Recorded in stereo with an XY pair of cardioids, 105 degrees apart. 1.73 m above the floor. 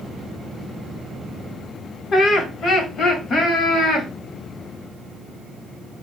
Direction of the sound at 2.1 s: 45° left.